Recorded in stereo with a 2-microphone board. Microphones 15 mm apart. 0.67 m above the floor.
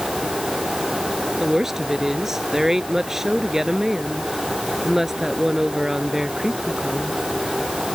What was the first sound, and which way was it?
A woman speaking, 25° right (ahead or behind).